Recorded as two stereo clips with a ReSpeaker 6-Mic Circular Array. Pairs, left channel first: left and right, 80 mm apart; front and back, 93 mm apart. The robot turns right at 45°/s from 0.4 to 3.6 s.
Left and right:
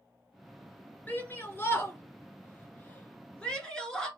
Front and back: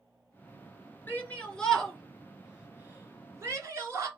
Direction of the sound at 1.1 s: 50° left.